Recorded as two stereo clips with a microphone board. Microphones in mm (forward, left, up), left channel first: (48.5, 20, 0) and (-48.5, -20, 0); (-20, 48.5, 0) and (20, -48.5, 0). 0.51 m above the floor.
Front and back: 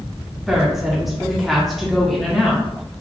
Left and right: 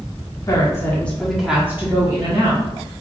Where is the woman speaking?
120° left, 1.1 m; by 2.6 s 65° right, 1.3 m.